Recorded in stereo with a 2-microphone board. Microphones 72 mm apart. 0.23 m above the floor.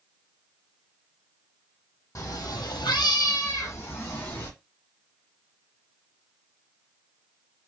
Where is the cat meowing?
50° left (ahead or behind), 0.6 m; by 4.5 s 30° left (ahead or behind), 1.1 m.